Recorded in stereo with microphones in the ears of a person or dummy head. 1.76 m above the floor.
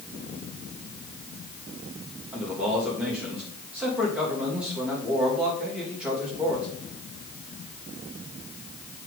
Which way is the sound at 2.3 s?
10° right (ahead or behind).